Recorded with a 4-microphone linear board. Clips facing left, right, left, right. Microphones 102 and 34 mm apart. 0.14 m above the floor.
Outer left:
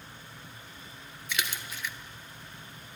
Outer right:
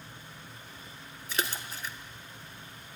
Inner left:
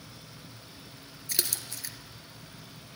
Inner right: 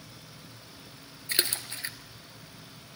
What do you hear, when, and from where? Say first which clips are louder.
1.3 s a splash: outer right 2 dB, inner right 5 dB; 40° right (ahead or behind), 0.7 m